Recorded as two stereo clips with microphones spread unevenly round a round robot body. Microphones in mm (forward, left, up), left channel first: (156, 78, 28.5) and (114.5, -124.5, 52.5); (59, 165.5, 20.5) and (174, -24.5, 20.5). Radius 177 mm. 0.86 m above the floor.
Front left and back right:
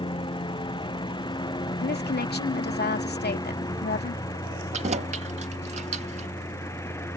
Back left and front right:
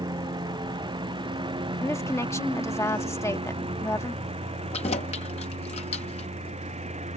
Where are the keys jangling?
170° right.